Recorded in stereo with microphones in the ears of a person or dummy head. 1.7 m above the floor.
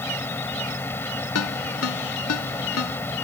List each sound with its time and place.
0.0 s a fan: 10° left (ahead or behind)
1.4 s a ringtone: 80° left